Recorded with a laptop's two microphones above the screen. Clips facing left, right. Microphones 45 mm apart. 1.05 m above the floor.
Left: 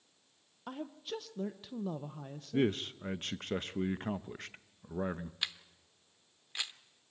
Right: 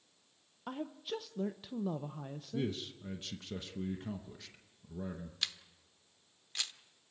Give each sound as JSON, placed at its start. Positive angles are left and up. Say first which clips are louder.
{"t": 0.7, "sound": "a woman speaking", "louder": "right 1 dB", "side_deg": -5, "distance_m": 0.5}
{"t": 2.5, "sound": "a man speaking", "louder": "left 7 dB", "side_deg": 45, "distance_m": 0.7}
{"t": 5.4, "sound": "a camera shutter", "louder": "left 1 dB", "side_deg": 15, "distance_m": 0.9}